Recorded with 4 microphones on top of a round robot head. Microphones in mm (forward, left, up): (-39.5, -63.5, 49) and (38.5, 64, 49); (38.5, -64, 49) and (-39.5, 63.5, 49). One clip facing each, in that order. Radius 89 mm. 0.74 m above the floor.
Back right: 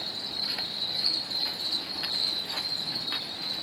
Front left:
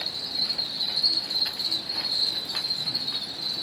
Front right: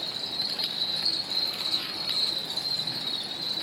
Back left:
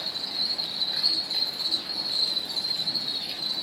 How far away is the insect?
About 4 m.